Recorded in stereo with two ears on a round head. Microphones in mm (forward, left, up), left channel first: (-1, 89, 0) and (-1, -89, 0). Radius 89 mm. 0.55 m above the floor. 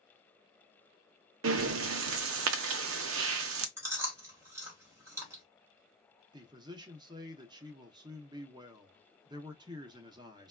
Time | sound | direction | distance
1.4 | breathing | 70° right (ahead or behind) | 0.5 m
3.8 | chewing | 15° right (ahead or behind) | 1.3 m
6.3 | a man speaking | 20° right (ahead or behind) | 0.6 m